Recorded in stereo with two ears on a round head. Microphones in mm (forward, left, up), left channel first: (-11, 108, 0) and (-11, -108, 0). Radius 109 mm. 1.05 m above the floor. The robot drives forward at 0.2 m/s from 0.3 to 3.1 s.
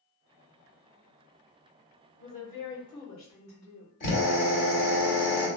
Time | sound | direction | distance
2.2 | a woman speaking | 45° left (ahead or behind) | 1.7 m
4.0 | a drill | 35° left (ahead or behind) | 1.9 m